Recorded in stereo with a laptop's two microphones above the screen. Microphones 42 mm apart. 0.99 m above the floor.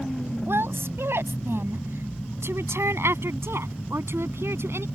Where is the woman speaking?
70° right (ahead or behind); by 4.8 s 80° right.